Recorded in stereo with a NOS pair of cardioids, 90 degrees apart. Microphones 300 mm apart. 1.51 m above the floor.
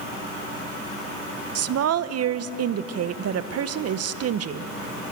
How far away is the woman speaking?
About 1.1 m.